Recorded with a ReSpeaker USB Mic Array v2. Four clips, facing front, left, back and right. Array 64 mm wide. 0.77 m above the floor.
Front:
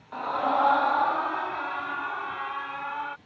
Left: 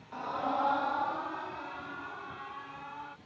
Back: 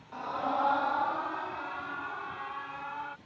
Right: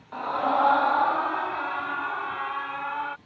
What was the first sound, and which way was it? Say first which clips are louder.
A scream: right 8 dB, front 6 dB; 50° right.